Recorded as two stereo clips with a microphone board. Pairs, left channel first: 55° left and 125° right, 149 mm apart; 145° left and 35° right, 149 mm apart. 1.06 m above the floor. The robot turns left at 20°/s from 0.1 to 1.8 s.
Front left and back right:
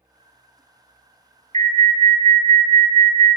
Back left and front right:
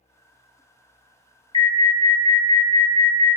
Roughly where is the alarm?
Behind.